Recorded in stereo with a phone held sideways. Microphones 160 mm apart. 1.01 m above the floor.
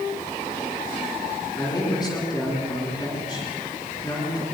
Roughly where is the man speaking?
Left.